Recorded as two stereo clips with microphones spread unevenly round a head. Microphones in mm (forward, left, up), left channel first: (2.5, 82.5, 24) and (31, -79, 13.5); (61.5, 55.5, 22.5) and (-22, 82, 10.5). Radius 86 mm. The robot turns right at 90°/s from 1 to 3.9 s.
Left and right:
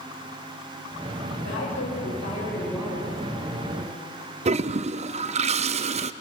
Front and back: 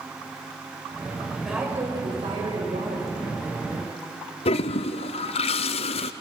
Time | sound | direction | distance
1.4 | a woman speaking | 75° left | 8 m
4.5 | a toilet flushing | 30° right | 0.6 m